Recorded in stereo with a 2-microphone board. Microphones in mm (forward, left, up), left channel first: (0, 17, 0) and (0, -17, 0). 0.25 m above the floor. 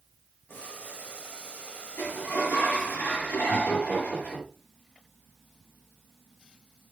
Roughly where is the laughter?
Left.